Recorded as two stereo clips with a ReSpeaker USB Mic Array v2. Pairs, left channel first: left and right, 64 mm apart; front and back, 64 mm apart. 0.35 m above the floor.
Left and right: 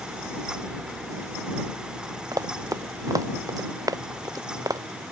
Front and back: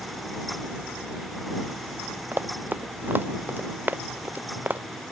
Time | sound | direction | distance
2.3 | running footsteps | 120° right | ?